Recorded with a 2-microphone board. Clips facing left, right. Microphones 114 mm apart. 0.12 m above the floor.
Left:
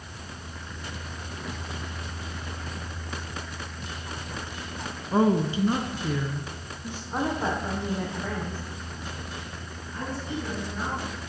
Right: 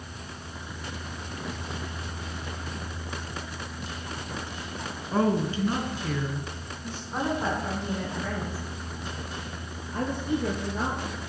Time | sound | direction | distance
5.1 | a woman speaking | 20° left (ahead or behind) | 1.2 m
7.1 | a woman speaking | 20° left (ahead or behind) | 7 m
9.9 | a woman speaking | 50° right (ahead or behind) | 2.5 m